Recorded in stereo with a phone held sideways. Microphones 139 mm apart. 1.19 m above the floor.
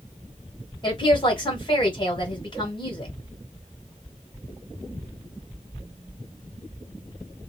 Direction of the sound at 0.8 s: 35° left (ahead or behind).